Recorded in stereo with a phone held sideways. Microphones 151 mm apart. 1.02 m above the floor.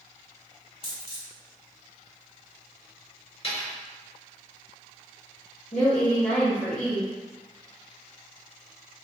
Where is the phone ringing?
No phone ringing in this recording.